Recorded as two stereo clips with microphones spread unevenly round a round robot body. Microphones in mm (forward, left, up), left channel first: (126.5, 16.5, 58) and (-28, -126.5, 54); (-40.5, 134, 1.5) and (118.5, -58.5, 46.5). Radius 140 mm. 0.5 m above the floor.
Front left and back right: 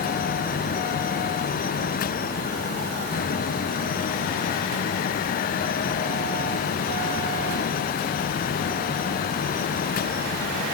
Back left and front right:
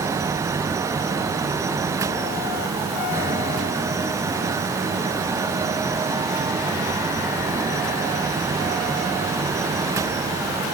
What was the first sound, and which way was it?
Only background noise.